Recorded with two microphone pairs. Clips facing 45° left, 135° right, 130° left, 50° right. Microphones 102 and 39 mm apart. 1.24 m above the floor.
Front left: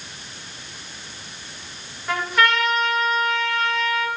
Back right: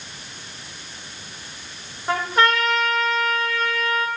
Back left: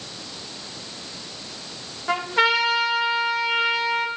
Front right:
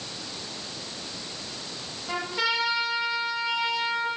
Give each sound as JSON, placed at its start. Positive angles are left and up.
{"t": 2.1, "sound": "a trumpet", "azimuth_deg": 170, "distance_m": 1.5}